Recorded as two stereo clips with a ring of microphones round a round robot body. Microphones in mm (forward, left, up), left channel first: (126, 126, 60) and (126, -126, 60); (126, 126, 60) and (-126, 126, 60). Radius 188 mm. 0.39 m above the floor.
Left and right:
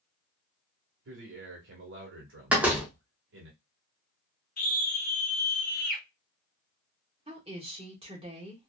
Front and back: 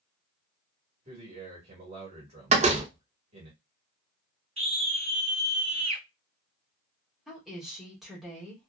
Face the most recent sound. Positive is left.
turn(degrees=-95)